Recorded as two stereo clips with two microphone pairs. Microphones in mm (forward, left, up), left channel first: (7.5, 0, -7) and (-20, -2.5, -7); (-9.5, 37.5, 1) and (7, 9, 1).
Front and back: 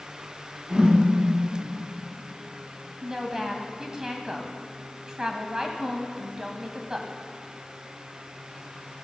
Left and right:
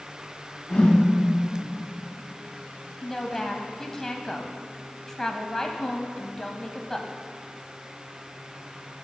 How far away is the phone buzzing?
I don't hear a phone buzzing.